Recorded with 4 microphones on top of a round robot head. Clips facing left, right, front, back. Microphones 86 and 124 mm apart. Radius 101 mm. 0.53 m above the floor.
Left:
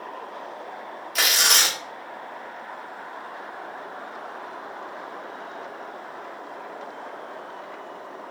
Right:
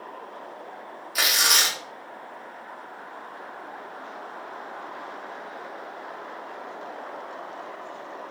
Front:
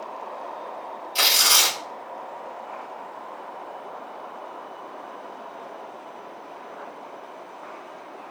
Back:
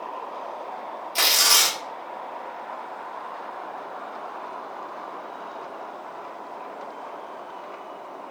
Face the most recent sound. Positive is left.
turn(degrees=-170)